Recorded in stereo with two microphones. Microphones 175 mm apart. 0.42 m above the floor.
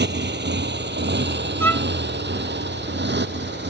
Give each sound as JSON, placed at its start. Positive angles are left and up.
{"t": 0.0, "sound": "a motorcycle", "side_deg": -85}
{"t": 1.6, "sound": "a violin", "side_deg": 15}